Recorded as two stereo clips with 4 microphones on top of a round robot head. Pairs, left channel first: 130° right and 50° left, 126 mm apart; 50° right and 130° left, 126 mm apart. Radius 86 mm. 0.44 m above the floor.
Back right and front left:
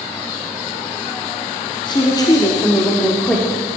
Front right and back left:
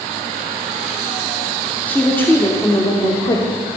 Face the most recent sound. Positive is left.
turn(degrees=-40)